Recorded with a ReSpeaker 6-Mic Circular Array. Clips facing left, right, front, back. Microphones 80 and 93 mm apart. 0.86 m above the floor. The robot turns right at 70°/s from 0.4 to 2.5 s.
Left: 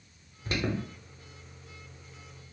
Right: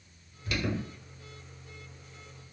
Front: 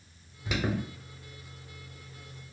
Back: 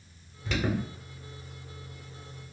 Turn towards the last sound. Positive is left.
turn(degrees=-155)